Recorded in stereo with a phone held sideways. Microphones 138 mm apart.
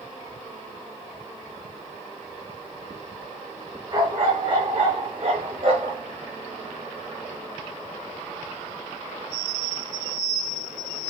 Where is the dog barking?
35° right (ahead or behind), 6 m; by 6.0 s 50° right (ahead or behind), 7 m.